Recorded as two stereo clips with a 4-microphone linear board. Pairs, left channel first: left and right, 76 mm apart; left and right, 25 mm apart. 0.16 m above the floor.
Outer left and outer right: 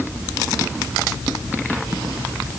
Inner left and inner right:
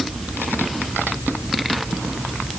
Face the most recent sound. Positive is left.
No sound to turn to.